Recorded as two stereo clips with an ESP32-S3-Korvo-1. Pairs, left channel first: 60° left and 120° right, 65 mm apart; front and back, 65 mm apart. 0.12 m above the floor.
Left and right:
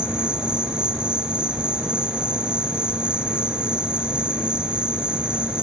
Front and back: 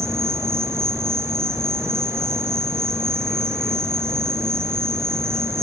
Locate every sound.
0.0 s an insect: 170° left, 2.5 m